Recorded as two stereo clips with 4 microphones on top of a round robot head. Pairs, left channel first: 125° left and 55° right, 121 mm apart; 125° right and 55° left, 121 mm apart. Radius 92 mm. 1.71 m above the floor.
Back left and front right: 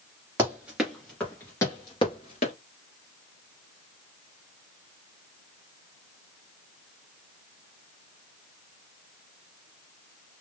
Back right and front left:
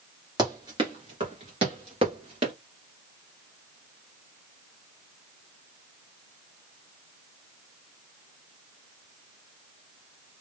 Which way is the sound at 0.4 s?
10° left.